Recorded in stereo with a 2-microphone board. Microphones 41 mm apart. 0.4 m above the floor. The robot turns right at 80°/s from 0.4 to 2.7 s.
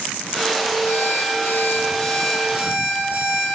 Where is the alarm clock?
65° left, 9.5 m; by 3.5 s 150° right, 9.5 m.